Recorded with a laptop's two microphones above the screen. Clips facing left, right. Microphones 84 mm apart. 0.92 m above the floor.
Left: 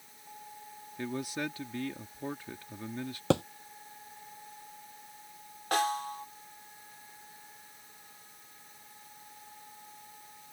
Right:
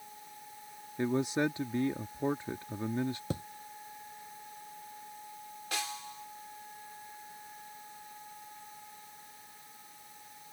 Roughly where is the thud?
Left.